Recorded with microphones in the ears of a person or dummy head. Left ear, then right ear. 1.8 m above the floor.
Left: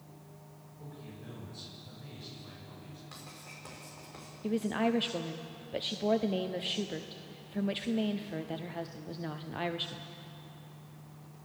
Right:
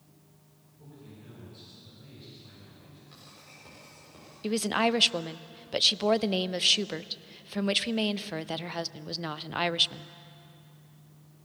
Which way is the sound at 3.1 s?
35° left (ahead or behind).